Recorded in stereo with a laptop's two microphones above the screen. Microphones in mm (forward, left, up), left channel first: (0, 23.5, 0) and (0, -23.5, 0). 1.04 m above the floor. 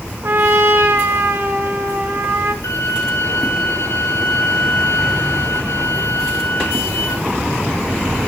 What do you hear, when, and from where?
0.2 s a trumpet: 60° right (ahead or behind), 1.8 m
2.6 s a violin: 85° left, 4 m